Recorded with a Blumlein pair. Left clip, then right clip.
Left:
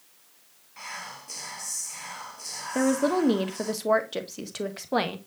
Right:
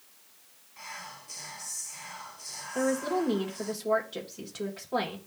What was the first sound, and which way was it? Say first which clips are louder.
Whispering: left 4 dB; 15° left.